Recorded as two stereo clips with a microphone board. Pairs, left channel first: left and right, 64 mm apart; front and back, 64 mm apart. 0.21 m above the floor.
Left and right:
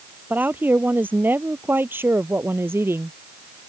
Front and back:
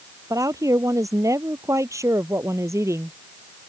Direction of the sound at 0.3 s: 150° right.